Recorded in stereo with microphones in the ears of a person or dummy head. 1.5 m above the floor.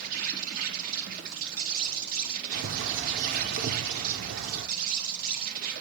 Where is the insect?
55° right (ahead or behind), 4 m.